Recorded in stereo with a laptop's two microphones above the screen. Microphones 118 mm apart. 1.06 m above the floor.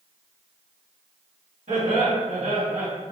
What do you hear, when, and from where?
1.7 s laughter: 75° right (ahead or behind), 1.7 m